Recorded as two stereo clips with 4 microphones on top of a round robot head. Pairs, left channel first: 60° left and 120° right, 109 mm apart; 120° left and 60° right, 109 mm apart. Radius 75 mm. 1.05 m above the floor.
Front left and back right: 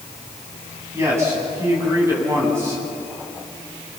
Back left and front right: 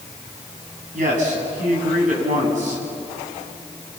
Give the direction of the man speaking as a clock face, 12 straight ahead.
2 o'clock.